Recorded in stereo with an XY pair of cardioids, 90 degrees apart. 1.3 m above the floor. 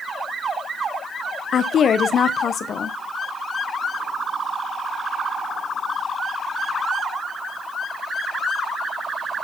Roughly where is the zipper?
No zipper in this recording.